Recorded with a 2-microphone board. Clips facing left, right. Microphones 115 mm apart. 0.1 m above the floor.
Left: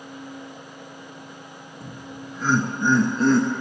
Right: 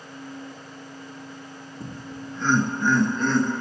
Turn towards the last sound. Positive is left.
turn(degrees=45)  # may be behind; listen again after turning